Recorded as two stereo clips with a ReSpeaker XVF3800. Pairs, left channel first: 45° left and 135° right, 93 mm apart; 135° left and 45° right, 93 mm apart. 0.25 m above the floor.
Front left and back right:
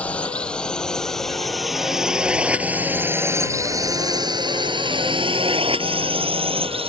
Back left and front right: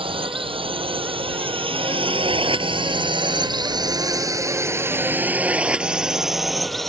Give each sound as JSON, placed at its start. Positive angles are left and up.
{"t": 0.0, "sound": "a drone", "azimuth_deg": -30}